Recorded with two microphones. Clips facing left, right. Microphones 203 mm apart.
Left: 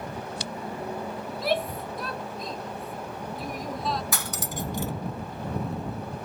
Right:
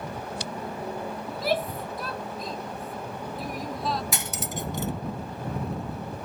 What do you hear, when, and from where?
1.3 s a shout: centre (ahead or behind)
4.1 s cutlery clinking: 20° right (ahead or behind)